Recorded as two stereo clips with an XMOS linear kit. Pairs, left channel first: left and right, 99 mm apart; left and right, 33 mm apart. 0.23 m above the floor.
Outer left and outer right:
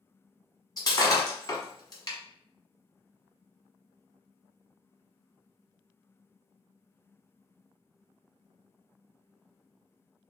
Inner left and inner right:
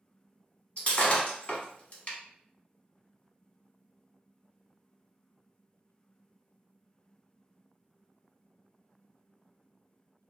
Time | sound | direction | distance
0.8 | breaking glass | 40° left (ahead or behind) | 1.0 m